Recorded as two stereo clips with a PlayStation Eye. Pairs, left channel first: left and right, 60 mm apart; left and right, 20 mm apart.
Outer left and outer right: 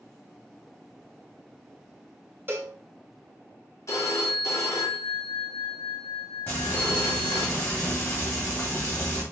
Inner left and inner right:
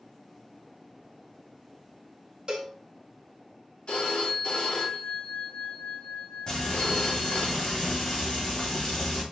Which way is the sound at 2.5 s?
35° right (ahead or behind).